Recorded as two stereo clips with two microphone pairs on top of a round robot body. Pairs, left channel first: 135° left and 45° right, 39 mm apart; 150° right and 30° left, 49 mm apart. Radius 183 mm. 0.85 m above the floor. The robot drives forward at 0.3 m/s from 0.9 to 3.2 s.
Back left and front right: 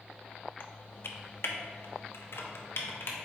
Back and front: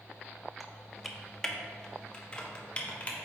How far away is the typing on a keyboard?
About 0.9 m.